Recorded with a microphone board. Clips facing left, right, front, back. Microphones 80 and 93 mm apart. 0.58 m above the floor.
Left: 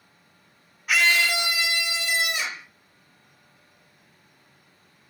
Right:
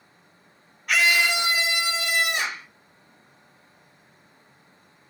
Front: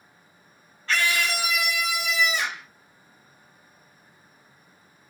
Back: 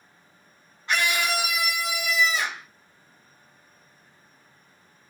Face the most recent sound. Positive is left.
turn(degrees=-105)